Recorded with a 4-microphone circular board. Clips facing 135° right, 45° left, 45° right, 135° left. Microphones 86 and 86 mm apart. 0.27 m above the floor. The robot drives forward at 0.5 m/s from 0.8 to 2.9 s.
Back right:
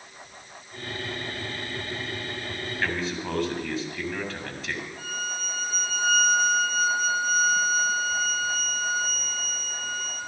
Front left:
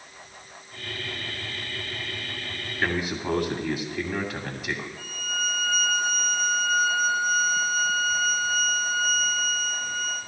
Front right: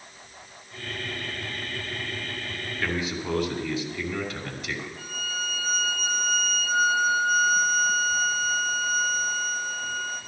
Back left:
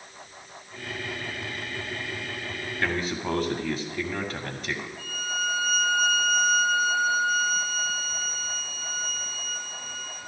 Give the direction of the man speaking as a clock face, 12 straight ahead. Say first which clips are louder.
Front left 3 dB, back left 1 dB; 8 o'clock.